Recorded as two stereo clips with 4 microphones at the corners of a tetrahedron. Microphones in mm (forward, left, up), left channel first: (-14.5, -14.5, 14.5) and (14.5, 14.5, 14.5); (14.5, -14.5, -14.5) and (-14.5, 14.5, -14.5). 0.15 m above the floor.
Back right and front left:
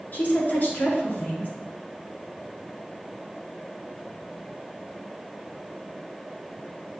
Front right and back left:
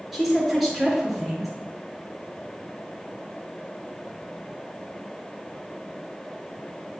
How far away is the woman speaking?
About 3 m.